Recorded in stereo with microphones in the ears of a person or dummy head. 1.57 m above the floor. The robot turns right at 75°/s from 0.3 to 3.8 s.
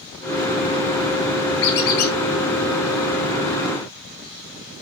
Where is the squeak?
85° left, 1.3 m; by 2.1 s 125° left, 1.3 m.